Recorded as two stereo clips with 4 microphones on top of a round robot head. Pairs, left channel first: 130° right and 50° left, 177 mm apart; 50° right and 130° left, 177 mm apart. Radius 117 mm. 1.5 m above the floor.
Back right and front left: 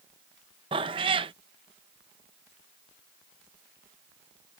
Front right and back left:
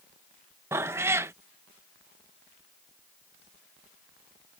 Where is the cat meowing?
70° left.